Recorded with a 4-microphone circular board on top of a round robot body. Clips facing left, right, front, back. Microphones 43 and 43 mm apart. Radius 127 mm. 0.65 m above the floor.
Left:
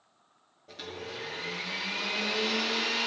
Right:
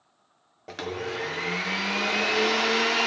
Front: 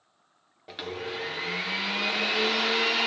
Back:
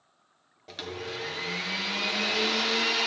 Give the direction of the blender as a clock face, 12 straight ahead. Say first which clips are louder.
Right 9 dB, front 2 dB; 3 o'clock.